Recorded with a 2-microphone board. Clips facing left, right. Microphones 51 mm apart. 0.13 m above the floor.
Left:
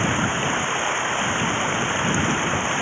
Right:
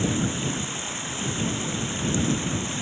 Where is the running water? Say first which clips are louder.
Left 5 dB; 45° left (ahead or behind).